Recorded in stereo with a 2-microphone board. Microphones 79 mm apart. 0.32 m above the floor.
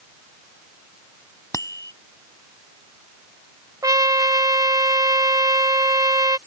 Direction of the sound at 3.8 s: 50° right (ahead or behind).